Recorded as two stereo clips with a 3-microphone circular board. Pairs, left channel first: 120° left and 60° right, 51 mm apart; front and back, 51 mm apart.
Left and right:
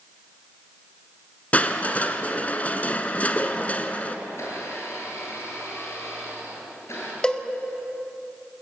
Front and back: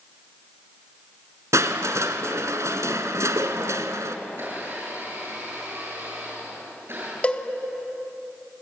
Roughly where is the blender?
Behind left.